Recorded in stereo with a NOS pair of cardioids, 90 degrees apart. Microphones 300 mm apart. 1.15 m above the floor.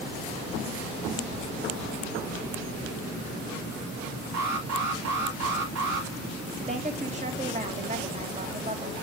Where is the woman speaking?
25° right, 2.5 m.